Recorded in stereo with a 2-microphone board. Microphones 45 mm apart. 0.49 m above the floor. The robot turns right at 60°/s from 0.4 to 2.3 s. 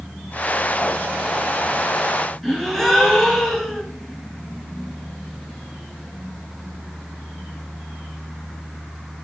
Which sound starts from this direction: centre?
A gasp, at 2.4 s.